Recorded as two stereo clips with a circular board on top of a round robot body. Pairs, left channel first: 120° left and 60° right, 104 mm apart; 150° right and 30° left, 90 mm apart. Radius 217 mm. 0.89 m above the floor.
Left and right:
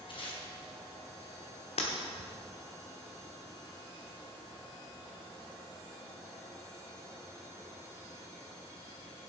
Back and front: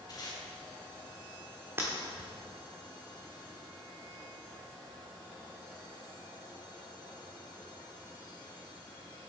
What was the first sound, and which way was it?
Tape being pulled, 160° left.